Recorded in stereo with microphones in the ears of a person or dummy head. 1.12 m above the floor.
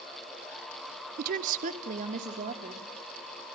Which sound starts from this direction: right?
A woman speaking, at 1.2 s.